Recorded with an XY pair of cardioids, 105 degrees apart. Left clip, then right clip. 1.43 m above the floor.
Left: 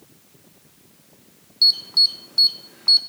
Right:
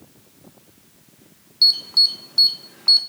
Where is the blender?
No blender in this recording.